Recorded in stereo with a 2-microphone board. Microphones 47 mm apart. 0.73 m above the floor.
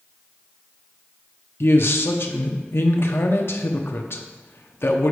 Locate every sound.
1.6 s a man speaking: 60° left (ahead or behind), 0.9 m